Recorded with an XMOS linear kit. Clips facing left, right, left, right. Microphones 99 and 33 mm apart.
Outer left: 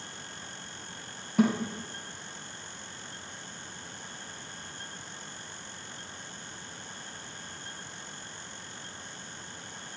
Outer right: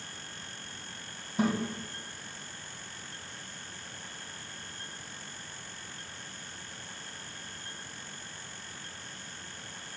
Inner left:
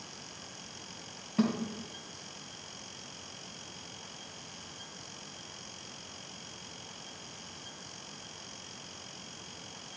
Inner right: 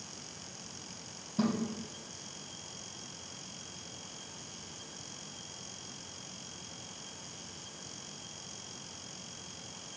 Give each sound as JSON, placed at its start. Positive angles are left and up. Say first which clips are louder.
{"t": 1.4, "sound": "a thud", "louder": "outer left 4 dB, inner left 2 dB", "side_deg": 75, "distance_m": 3.0}